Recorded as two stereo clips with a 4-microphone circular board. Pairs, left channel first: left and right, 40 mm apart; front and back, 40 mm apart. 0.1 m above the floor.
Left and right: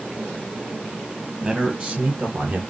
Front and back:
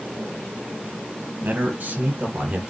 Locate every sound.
1.4 s a man speaking: 140° right, 2.5 m; by 2.6 s 115° right, 3 m